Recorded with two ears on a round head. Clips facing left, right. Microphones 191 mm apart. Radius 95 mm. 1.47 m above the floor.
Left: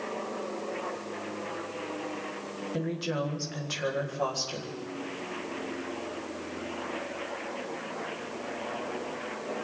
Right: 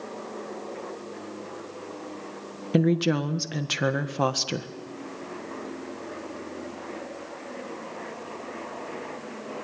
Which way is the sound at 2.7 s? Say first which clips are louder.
Right 10 dB; 75° right (ahead or behind).